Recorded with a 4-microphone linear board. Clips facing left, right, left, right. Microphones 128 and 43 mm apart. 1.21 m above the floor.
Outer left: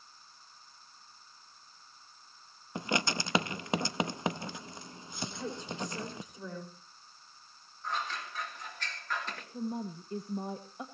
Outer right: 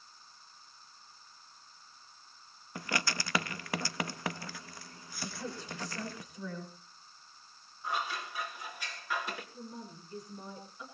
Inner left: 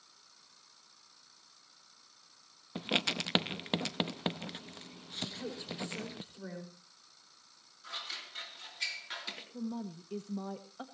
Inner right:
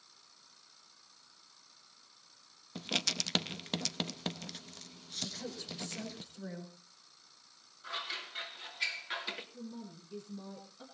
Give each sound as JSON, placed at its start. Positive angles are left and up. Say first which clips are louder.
{"t": 2.8, "sound": "writing", "louder": "outer left 4 dB, inner left 3 dB", "side_deg": 20, "distance_m": 0.6}
{"t": 5.2, "sound": "a woman speaking", "louder": "outer left 2 dB, inner left 2 dB", "side_deg": 20, "distance_m": 5.0}
{"t": 7.8, "sound": "scissors", "louder": "outer right 1 dB, inner right 3 dB", "side_deg": -10, "distance_m": 3.0}
{"t": 9.5, "sound": "a woman speaking", "louder": "outer left 9 dB, inner left 7 dB", "side_deg": 60, "distance_m": 1.8}